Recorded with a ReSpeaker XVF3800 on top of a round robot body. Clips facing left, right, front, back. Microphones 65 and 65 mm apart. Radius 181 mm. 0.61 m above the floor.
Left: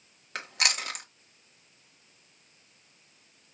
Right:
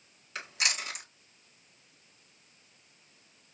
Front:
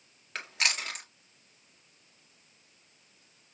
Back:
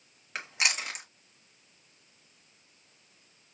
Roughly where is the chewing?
Left.